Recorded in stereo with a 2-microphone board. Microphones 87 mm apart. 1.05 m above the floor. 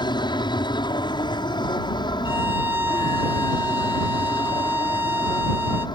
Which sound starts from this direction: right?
A violin, at 2.2 s.